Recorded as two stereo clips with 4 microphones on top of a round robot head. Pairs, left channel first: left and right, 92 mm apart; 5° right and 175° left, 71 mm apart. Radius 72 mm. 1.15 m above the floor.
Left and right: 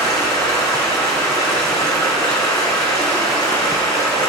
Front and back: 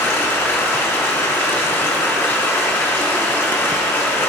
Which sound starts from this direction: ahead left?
Running water, at 0.0 s.